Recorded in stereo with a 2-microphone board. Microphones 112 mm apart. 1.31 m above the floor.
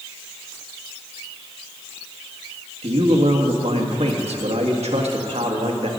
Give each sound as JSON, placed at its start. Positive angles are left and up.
{"t": 2.8, "sound": "a man speaking", "side_deg": -80, "distance_m": 1.7}